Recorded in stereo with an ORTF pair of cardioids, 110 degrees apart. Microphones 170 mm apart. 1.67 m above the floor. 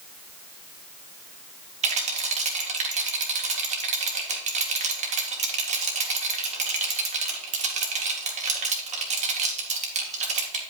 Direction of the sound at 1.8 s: 40° right.